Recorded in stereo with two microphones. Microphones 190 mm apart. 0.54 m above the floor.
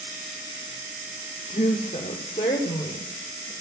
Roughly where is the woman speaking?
Left.